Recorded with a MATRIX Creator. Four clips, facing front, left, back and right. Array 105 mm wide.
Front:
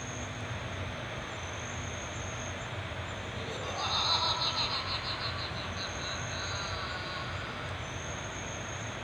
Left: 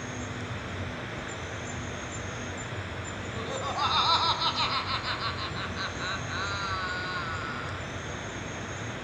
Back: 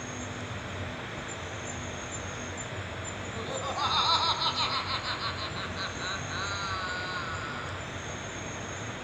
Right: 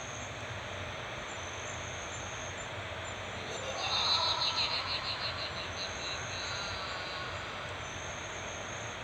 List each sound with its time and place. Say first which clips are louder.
0.0 s an insect: left 6 dB, back 2 dB; 105° left, 3 m
3.4 s laughter: left 10 dB, back 6 dB; 115° left, 5 m